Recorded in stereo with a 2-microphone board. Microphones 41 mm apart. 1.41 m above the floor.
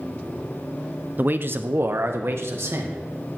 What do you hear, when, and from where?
1.2 s a man speaking: 45° right (ahead or behind), 0.6 m; by 3.0 s 75° right (ahead or behind), 2 m